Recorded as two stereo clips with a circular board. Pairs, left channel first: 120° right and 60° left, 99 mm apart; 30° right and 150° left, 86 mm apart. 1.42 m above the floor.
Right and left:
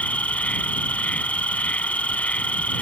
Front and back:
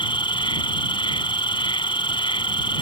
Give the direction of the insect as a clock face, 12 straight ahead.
1 o'clock.